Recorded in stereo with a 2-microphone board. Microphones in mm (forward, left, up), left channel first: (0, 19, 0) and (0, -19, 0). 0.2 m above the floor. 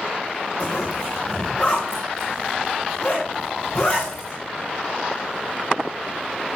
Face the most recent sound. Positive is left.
turn(degrees=30)  # may be behind; listen again after turning